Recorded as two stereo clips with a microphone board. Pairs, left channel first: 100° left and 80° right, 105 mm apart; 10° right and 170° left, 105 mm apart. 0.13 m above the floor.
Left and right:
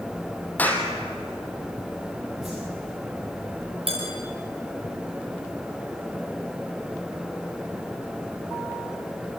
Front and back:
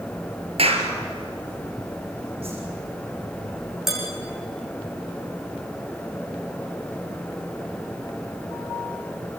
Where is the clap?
175° left, 3 m.